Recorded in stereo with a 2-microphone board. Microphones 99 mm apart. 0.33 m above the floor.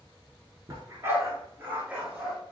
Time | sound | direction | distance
0.7 | a dog barking | 35° right (ahead or behind) | 1.6 m